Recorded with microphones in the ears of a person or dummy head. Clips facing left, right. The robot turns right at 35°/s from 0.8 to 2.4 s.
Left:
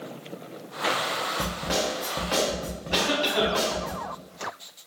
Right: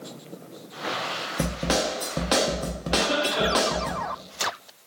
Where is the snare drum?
115° right, 0.8 m; by 3.9 s 80° right, 0.8 m.